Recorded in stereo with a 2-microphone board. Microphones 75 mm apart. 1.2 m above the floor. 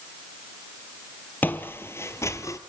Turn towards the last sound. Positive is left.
turn(degrees=50)  # may be behind; listen again after turning